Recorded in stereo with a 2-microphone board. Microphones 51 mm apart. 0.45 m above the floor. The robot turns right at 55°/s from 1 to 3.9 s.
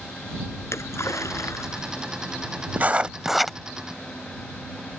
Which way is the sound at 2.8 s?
40° right.